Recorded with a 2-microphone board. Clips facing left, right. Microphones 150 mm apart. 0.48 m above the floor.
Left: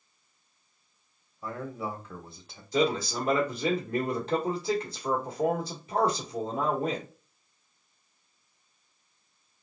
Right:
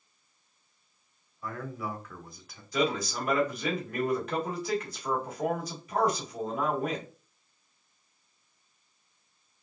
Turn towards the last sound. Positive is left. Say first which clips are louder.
# left 3 dB
turn(degrees=30)  # may be behind; listen again after turning